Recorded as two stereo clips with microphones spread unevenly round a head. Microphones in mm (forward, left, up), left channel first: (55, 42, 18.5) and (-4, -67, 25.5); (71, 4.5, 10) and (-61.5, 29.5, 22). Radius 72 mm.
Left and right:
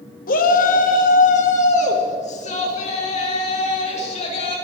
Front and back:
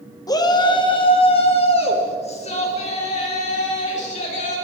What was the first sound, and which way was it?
A shout, 55° left.